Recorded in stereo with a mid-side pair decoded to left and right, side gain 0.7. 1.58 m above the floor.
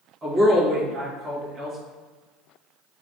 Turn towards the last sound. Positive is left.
turn(degrees=-25)